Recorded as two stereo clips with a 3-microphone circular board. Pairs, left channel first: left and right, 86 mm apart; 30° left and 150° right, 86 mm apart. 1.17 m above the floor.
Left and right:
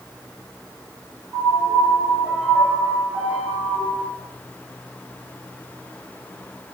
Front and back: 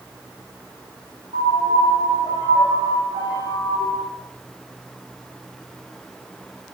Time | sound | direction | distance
1.3 | a piano | 165° right | 1.9 m